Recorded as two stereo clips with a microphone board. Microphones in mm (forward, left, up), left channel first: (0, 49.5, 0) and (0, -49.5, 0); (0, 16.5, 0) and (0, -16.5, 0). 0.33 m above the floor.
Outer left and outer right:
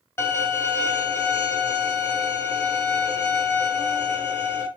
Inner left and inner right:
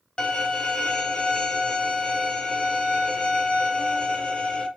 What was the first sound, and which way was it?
A violin, 25° left (ahead or behind).